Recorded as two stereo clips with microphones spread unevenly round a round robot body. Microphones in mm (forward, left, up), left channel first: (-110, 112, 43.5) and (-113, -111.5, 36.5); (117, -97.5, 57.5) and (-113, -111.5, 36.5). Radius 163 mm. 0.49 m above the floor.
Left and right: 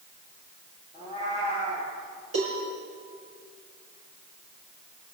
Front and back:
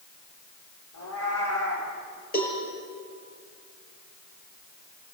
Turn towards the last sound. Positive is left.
turn(degrees=-45)